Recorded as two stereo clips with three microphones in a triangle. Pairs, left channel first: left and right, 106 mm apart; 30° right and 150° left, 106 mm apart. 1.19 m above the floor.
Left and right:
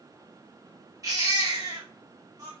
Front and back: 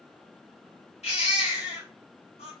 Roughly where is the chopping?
I don't hear chopping.